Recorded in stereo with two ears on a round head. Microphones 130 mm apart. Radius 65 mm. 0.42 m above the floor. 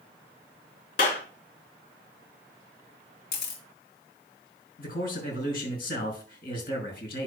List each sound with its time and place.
1.0 s a clap: 60° left (ahead or behind), 3.5 m
3.3 s a camera shutter: 75° left (ahead or behind), 3.5 m
4.8 s a man speaking: 75° left (ahead or behind), 6 m